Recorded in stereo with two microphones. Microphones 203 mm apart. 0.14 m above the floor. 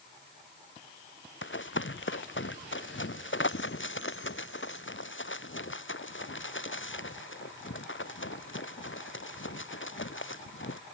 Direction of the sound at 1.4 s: 70° left (ahead or behind).